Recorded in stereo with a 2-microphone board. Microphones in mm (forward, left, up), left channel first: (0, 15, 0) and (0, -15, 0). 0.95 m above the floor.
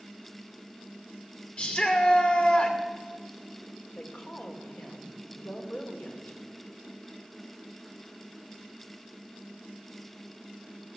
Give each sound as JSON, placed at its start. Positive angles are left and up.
{"t": 1.6, "sound": "a shout", "side_deg": 40, "distance_m": 2.5}
{"t": 4.0, "sound": "a woman speaking", "side_deg": 65, "distance_m": 2.5}